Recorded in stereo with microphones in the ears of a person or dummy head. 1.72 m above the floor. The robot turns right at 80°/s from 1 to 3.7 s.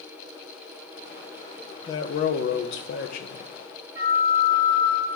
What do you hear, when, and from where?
1.9 s a man speaking: 30° left, 1.1 m; by 3.5 s 160° left, 1.1 m
4.0 s a flute: 25° right (ahead or behind), 4.5 m